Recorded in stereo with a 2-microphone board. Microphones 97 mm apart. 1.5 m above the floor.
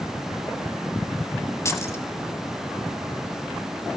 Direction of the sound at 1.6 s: 30° left (ahead or behind).